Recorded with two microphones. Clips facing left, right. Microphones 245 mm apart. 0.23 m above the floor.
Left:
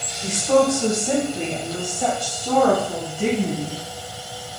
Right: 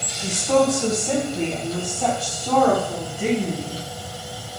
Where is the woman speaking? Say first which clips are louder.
Left 1 dB; 10° left (ahead or behind), 1.0 m.